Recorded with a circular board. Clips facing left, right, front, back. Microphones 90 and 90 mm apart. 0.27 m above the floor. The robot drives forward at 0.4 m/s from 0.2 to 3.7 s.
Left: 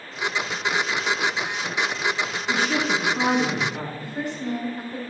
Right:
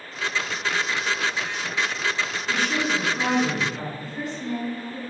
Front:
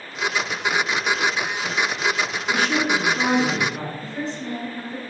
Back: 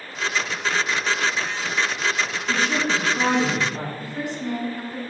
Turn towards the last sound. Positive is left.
turn(degrees=105)